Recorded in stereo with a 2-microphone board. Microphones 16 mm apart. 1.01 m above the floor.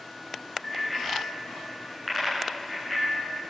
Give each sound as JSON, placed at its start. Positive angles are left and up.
{"t": 0.6, "sound": "a bicycle bell", "side_deg": 25, "distance_m": 10.0}